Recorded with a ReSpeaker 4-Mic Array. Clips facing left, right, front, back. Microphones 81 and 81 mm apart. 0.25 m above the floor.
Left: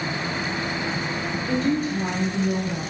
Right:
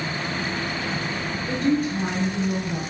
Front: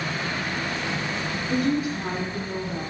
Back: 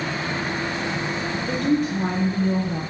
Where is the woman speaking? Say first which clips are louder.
Right 1 dB, back 2 dB; straight behind, 5.5 m.